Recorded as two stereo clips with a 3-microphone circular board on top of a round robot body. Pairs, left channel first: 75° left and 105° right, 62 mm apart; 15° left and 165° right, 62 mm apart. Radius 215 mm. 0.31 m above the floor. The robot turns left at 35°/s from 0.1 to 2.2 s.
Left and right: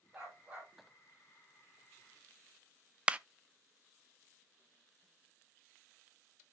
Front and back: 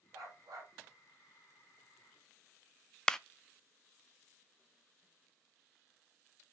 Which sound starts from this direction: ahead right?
A clap, at 3.1 s.